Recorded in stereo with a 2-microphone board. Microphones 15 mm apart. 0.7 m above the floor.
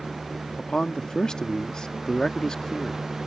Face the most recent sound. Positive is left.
turn(degrees=50)  # may be behind; listen again after turning